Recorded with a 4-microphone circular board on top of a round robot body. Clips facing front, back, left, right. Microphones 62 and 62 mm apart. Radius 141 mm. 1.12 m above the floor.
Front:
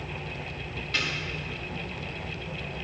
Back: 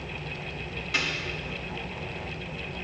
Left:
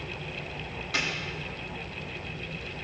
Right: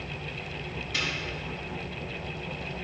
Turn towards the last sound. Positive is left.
turn(degrees=100)